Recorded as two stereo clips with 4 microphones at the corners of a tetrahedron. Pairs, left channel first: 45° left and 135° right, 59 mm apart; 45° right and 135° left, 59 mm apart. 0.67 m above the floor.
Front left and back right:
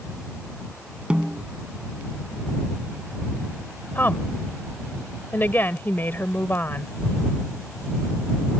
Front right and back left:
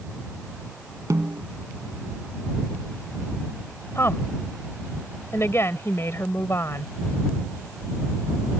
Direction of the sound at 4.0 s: 10° right.